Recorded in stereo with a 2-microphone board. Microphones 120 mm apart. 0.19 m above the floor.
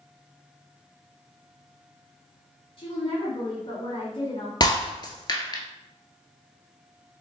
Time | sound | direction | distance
2.8 | a woman speaking | 45° left (ahead or behind) | 1.6 m
4.6 | breaking glass | 40° left (ahead or behind) | 0.7 m